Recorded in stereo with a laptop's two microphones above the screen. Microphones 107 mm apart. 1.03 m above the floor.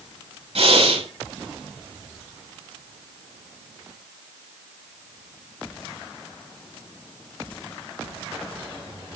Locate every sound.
0.6 s breathing: 65° right (ahead or behind), 7 m